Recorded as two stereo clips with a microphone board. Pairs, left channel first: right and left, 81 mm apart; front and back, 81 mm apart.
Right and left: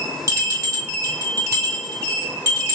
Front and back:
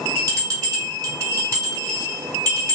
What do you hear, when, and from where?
0.3 s a bell: 140° left, 3 m